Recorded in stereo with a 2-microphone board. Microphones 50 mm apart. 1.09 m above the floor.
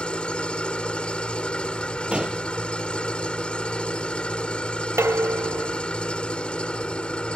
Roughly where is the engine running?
Left.